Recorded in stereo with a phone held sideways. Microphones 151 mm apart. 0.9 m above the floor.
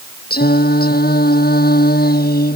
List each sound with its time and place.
0.3 s singing: 75° left (ahead or behind)